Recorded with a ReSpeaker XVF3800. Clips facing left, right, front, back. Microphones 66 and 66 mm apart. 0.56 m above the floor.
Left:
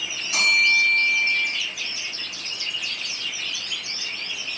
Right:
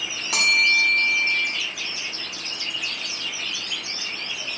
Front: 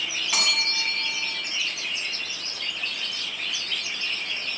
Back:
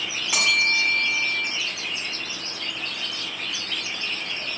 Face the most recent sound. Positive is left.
turn(degrees=-100)